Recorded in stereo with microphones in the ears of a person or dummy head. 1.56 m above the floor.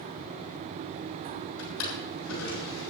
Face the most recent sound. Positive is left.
turn(degrees=80)